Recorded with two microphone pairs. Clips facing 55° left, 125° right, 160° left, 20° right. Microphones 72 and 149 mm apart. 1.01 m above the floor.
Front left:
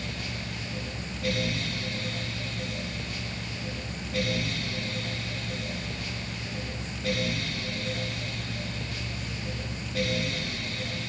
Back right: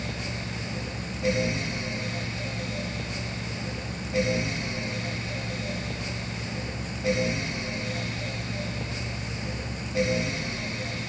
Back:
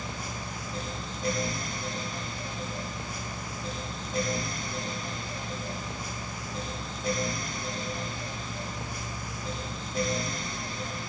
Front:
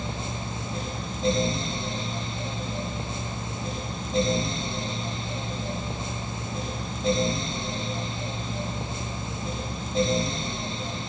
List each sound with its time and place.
Only background noise.